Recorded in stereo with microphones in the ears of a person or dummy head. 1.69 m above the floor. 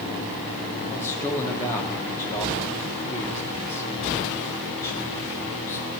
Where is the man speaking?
15° left (ahead or behind), 1.8 m.